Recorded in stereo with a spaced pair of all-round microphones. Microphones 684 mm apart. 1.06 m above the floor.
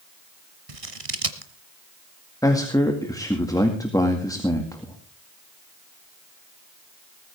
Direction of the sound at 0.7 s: 60° right (ahead or behind).